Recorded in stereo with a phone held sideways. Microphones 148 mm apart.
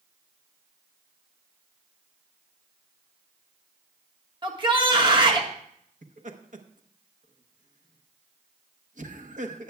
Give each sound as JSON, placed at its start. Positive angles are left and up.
{"t": 4.4, "sound": "a shout", "side_deg": -35, "distance_m": 1.5}
{"t": 6.0, "sound": "laughter", "side_deg": -60, "distance_m": 1.0}